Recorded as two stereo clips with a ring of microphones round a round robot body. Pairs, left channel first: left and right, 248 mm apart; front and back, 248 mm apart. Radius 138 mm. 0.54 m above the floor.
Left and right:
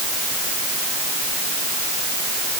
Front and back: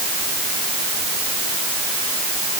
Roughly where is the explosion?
No explosion in this recording.